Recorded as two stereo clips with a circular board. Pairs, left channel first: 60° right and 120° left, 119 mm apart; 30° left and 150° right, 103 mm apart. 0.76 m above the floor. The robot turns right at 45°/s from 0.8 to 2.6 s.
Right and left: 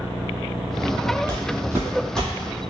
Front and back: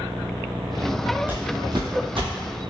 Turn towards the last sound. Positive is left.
turn(degrees=-120)